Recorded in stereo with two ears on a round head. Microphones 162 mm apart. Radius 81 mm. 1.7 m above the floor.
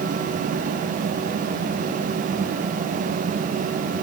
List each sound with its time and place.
Only background noise.